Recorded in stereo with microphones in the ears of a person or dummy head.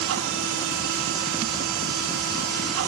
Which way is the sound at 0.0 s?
65° right (ahead or behind).